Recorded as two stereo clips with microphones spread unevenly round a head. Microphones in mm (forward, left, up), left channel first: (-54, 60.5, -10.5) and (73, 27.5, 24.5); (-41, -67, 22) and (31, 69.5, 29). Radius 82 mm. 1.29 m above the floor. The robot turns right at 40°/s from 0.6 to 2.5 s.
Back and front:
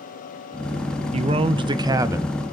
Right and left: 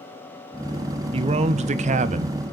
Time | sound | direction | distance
1.1 | a man speaking | 25° left | 0.6 m